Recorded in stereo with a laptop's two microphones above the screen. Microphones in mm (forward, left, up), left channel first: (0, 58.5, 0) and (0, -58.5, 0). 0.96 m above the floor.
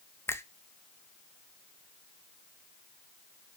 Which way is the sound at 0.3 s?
20° left (ahead or behind).